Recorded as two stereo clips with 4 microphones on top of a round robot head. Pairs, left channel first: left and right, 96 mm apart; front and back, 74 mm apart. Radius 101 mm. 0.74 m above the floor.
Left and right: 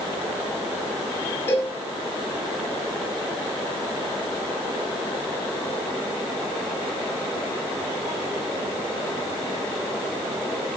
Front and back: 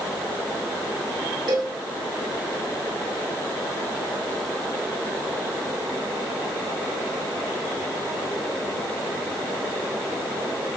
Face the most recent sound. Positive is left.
turn(degrees=155)